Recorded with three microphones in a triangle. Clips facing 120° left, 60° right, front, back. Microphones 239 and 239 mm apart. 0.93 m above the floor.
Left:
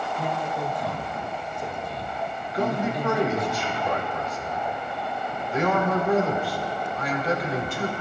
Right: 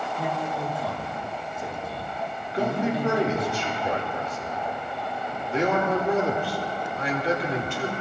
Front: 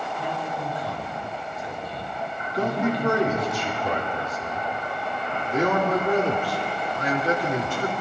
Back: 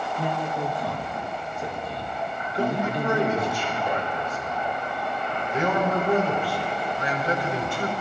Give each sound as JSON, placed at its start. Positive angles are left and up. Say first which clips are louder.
{"t": 0.2, "sound": "a man speaking", "louder": "even, back 4 dB", "azimuth_deg": -145, "distance_m": 2.0}
{"t": 2.5, "sound": "a man speaking", "louder": "right 1 dB, front 2 dB", "azimuth_deg": 0, "distance_m": 2.5}